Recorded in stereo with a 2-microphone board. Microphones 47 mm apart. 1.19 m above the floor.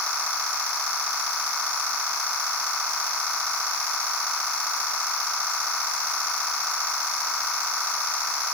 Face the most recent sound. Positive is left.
No sound to turn to.